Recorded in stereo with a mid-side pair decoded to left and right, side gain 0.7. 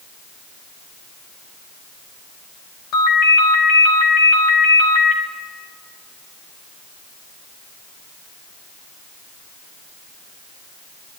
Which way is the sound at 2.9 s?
60° left.